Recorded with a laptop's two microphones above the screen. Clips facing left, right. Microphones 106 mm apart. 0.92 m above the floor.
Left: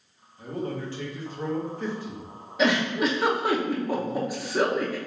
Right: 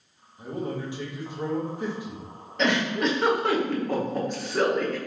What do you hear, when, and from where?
0.4 s a man speaking: 15° right (ahead or behind), 0.9 m
2.6 s a giggle: 5° left (ahead or behind), 0.6 m